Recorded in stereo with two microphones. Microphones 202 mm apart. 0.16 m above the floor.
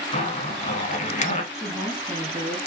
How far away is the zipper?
About 0.7 m.